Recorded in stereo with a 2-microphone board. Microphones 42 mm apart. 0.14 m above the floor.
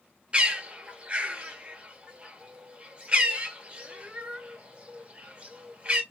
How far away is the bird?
About 0.9 m.